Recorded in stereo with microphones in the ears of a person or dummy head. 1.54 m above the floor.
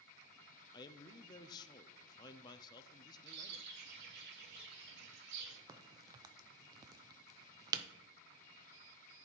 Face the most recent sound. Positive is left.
turn(degrees=-30)  # may be behind; listen again after turning